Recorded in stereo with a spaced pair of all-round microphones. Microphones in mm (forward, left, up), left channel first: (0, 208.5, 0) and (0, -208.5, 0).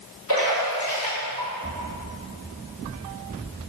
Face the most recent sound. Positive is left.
turn(degrees=70)  # may be behind; listen again after turning